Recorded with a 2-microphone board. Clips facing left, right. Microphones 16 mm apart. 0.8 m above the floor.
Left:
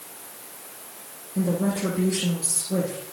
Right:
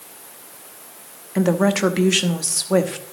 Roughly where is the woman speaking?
Right.